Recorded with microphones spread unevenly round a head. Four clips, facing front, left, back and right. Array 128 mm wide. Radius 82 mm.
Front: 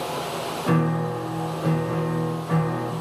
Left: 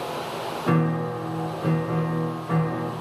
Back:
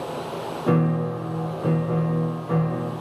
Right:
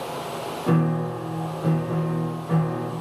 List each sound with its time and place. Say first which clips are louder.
0.7 s a piano: right 1 dB, back 2 dB; 100° left, 0.7 m